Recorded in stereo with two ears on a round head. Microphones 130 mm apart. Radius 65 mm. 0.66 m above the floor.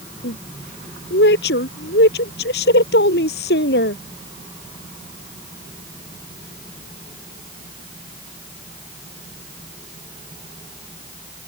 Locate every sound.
0.2 s a woman speaking: 85° left